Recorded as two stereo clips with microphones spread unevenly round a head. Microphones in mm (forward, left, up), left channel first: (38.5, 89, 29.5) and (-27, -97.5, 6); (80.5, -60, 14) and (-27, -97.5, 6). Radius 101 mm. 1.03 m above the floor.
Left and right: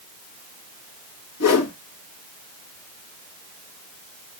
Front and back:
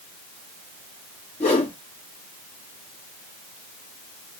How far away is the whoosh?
About 1.5 m.